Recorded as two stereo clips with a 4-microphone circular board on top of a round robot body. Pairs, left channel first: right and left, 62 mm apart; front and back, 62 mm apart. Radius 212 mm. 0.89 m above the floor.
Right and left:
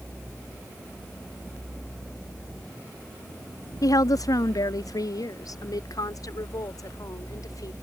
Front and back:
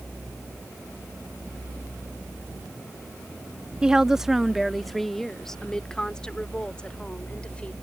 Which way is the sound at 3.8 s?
105° right.